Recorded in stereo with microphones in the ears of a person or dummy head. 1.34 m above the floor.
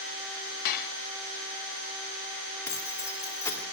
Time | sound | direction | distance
0.7 | dishes clattering | 55° left (ahead or behind) | 0.7 m
2.7 | keys jangling | 10° left (ahead or behind) | 2.5 m